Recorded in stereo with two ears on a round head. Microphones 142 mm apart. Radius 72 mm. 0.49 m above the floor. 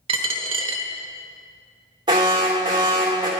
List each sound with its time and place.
0.1 s a dropped coin: 35° right (ahead or behind), 0.8 m
2.1 s an alarm: 30° right (ahead or behind), 1.9 m